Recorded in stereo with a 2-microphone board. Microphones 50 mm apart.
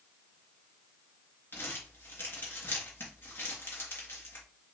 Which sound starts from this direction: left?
Crumpling, at 1.5 s.